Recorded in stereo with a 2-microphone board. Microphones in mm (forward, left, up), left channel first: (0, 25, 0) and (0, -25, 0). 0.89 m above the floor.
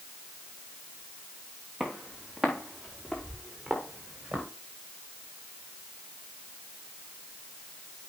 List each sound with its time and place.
1.8 s footsteps: centre (ahead or behind), 5 m; by 4.5 s 15° right (ahead or behind), 5.5 m